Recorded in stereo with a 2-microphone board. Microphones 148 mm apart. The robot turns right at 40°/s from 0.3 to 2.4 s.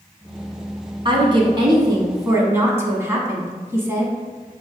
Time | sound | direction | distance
1.1 | a woman speaking | 85° right | 1.1 m